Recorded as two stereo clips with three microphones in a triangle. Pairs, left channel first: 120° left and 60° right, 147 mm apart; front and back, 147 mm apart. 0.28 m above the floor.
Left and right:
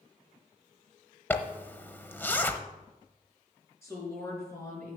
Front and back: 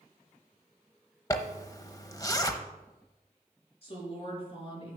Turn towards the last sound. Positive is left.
turn(degrees=50)